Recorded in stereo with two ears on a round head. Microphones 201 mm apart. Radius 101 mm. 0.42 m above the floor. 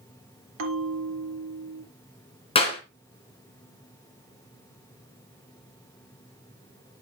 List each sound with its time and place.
0.6 s a bell: 65° right (ahead or behind), 2 m
2.5 s a clap: 25° left (ahead or behind), 3.5 m